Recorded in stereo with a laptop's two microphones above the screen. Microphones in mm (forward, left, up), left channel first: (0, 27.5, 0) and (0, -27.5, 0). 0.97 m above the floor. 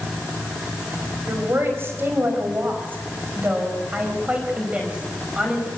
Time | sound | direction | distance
1.3 | a woman speaking | 45° right (ahead or behind) | 4.5 m